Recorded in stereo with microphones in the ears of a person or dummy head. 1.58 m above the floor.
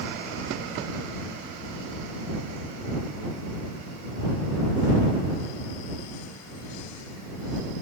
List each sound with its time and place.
Only background noise.